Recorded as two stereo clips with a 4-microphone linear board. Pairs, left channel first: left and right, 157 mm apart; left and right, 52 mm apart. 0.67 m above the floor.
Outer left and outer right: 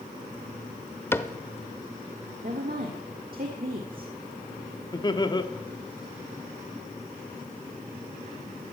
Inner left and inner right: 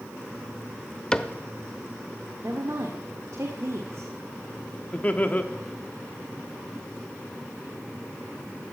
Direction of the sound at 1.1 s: 15° left (ahead or behind).